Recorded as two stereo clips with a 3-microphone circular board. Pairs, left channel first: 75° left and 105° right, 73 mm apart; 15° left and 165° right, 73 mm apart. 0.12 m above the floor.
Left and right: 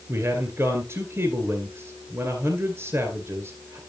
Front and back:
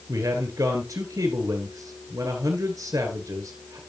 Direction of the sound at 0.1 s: 145° right.